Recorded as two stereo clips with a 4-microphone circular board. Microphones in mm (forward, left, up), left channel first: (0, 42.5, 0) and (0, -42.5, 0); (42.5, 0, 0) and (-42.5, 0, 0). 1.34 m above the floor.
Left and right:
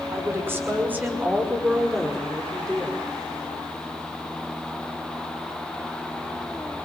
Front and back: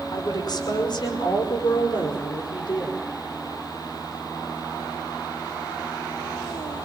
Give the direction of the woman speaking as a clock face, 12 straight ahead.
1 o'clock.